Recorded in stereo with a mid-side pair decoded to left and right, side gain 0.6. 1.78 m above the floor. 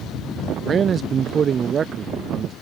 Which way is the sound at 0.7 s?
40° right.